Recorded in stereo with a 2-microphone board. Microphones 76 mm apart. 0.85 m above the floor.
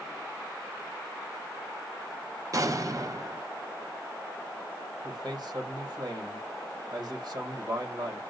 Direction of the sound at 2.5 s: 45° right (ahead or behind).